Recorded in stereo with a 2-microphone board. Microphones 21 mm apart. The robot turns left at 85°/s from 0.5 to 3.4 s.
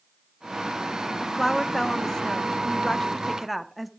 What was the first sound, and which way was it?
A woman speaking, 5° right (ahead or behind).